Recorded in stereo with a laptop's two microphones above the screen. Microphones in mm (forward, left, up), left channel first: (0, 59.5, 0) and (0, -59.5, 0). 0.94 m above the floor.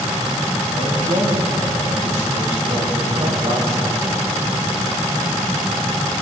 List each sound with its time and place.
0.7 s a man speaking: 80° right, 7.5 m; by 4.0 s 50° right (ahead or behind), 5 m